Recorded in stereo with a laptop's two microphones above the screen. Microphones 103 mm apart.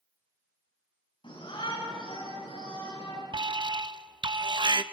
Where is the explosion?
No explosion in this recording.